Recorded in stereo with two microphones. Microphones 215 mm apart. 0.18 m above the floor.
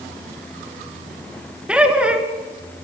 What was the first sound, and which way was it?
Laughter, 5° right (ahead or behind).